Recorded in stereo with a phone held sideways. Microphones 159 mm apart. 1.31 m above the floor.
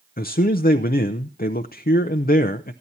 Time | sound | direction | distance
0.2 | a man speaking | 70° left (ahead or behind) | 0.5 m